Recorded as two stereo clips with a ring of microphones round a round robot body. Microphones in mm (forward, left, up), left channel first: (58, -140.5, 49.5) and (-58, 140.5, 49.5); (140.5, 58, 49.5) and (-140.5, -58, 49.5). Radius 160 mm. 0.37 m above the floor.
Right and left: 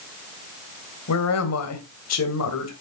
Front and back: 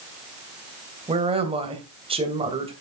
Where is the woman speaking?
90° right, 2.5 m.